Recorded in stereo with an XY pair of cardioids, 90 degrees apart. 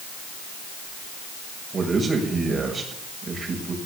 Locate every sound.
1.7 s a man speaking: 50° right, 7 m